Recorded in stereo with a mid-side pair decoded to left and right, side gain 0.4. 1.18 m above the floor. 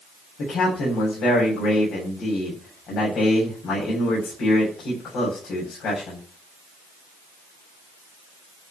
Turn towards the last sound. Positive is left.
turn(degrees=70)